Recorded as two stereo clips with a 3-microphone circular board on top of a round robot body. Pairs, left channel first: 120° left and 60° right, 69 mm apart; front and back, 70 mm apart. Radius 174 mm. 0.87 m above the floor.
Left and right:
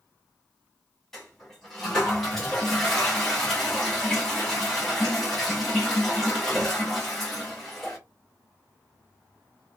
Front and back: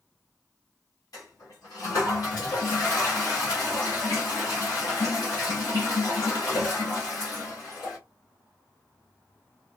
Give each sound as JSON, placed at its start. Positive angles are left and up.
{"t": 1.1, "sound": "a toilet flushing", "azimuth_deg": 35, "distance_m": 2.0}